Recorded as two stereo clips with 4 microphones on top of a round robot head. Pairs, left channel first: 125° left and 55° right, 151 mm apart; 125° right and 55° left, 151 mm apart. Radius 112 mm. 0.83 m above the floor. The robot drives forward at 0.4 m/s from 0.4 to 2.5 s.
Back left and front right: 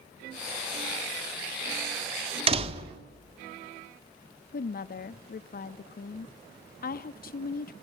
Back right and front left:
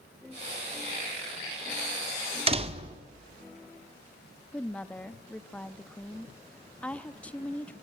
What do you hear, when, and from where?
2.5 s a door slam: straight ahead, 1.9 m
4.5 s a woman speaking: 155° left, 1.2 m